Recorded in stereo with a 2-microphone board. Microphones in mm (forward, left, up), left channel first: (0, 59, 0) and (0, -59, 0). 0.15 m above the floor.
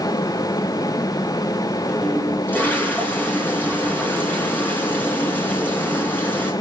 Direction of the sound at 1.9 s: 15° left (ahead or behind).